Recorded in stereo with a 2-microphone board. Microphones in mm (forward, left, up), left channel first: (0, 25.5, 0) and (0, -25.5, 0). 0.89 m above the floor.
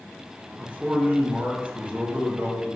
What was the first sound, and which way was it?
A man speaking, 25° right (ahead or behind).